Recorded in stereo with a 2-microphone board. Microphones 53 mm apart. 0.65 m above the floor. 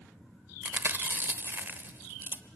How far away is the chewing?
About 1.1 m.